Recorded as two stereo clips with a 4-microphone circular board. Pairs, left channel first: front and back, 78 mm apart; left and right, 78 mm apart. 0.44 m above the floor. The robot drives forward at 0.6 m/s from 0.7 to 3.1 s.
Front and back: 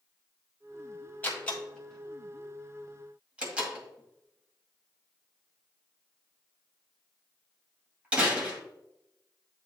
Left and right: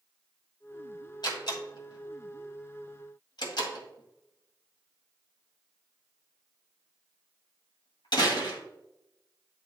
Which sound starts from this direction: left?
A door slam, at 1.2 s.